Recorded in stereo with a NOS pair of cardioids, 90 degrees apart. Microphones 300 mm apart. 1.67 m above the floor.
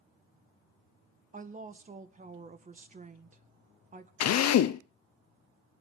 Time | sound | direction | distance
1.3 | a woman speaking | 25° right | 1.7 m
4.2 | a drill | 60° left | 1.0 m